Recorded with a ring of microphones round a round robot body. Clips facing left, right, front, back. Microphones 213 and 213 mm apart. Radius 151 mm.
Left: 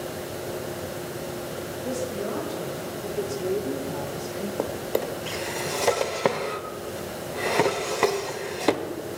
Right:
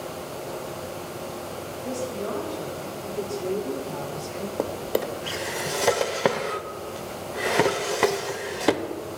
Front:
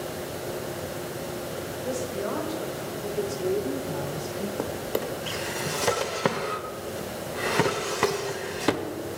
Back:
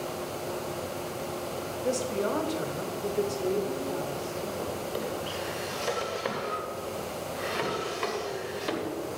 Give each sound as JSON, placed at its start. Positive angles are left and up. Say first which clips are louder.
{"t": 1.8, "sound": "a woman speaking", "louder": "even, back 2 dB", "azimuth_deg": 160, "distance_m": 1.5}
{"t": 4.6, "sound": "a drawer", "louder": "right 1 dB, front 3 dB", "azimuth_deg": -5, "distance_m": 0.6}